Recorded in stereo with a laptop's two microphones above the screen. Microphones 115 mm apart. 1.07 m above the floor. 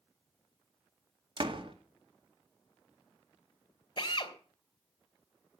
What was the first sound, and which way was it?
A door slam, 50° right (ahead or behind).